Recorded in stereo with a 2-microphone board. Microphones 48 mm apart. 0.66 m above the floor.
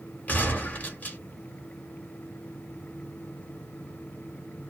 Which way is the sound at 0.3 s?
30° left (ahead or behind).